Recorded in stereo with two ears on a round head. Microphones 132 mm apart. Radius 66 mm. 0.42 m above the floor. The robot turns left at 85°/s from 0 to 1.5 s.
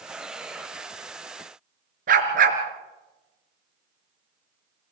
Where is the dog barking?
65° right (ahead or behind), 3 m.